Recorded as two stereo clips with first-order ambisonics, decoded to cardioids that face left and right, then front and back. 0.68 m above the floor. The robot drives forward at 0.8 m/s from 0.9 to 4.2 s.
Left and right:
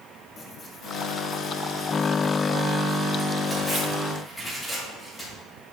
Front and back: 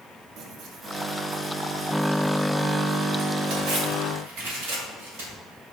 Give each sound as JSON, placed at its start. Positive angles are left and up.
{"t": 0.4, "sound": "tearing paper", "azimuth_deg": 145, "distance_m": 1.1}